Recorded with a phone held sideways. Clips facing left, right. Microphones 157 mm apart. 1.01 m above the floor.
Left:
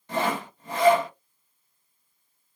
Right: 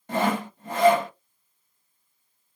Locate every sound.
0.1 s sawing: 50° right (ahead or behind), 1.3 m